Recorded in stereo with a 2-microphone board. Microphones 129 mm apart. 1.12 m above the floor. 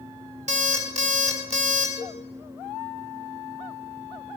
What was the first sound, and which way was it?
An alarm clock, 65° right (ahead or behind).